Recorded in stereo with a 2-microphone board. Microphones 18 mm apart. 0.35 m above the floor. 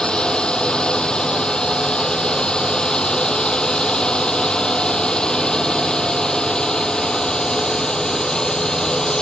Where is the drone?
60° left (ahead or behind); by 9.2 s 45° left (ahead or behind).